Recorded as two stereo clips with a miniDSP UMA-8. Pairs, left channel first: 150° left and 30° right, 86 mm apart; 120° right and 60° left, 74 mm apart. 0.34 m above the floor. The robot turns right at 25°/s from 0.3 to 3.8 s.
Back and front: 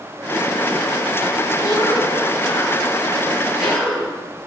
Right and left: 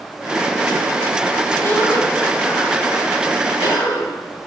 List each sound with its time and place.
1.6 s a cough: 170° right, 4 m; by 4.2 s 120° right, 4 m